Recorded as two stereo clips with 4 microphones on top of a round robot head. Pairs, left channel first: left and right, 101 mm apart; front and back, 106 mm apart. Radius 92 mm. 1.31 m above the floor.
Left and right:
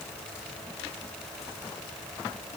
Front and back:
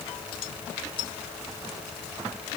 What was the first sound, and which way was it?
Only background noise.